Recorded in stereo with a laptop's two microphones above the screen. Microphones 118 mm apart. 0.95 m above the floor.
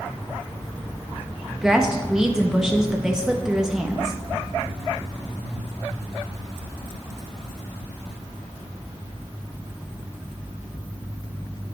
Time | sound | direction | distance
1.5 | a woman speaking | 5° right (ahead or behind) | 0.8 m